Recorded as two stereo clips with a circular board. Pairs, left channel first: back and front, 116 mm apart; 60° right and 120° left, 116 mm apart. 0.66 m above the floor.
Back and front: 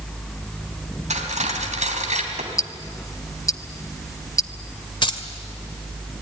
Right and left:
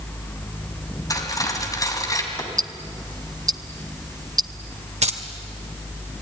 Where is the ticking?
140° left, 0.7 m.